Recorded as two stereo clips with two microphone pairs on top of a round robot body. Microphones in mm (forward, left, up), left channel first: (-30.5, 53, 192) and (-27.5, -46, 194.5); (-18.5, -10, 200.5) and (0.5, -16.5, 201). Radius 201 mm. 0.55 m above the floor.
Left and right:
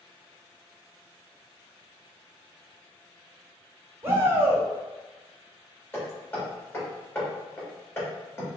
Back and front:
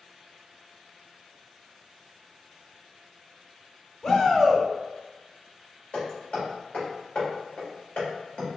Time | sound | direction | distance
4.0 | a shout | 155° right | 1.3 m
5.9 | hammering | 160° left | 1.7 m